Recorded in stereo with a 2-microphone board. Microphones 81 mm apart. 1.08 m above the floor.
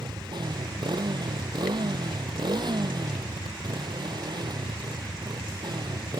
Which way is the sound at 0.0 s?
60° right (ahead or behind).